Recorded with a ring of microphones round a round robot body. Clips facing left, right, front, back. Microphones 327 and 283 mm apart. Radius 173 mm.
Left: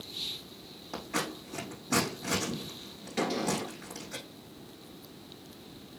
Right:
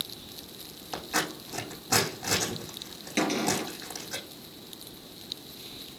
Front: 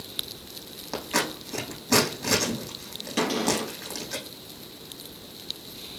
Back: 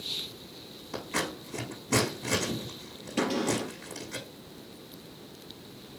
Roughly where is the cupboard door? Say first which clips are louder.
Right 3 dB, front 2 dB; ahead right.